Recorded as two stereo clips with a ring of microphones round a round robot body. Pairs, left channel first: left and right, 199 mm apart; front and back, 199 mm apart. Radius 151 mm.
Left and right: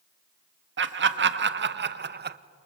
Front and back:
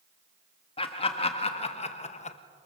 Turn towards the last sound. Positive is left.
turn(degrees=-55)